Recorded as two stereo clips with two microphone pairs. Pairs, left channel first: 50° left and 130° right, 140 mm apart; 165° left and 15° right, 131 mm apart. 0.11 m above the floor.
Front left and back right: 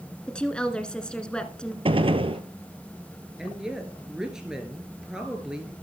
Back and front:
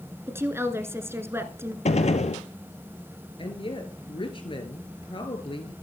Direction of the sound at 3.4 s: 140° left.